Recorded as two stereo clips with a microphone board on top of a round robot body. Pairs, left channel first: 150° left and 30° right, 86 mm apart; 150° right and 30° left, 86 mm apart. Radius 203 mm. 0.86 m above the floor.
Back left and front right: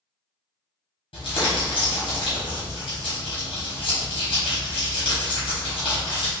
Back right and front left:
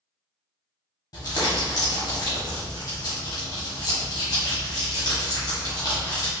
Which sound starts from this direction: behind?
Crumpling, at 1.1 s.